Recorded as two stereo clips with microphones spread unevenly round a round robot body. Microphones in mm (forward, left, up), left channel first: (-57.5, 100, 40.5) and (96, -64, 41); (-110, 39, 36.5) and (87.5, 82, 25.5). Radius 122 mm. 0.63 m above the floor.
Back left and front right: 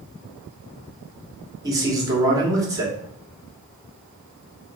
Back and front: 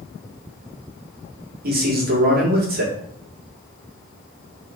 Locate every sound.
1.6 s a man speaking: 25° left, 1.7 m